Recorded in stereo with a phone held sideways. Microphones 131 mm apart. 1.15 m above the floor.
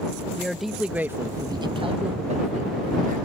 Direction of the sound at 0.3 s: 5° left (ahead or behind).